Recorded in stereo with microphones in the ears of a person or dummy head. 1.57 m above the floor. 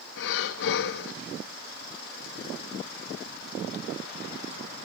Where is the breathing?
65° left (ahead or behind), 1.4 m.